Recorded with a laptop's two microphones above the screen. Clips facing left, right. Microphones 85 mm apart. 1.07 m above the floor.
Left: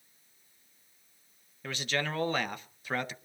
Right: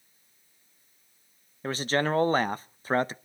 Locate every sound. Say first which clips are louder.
1.6 s a man speaking: right 7 dB; 35° right (ahead or behind), 0.7 m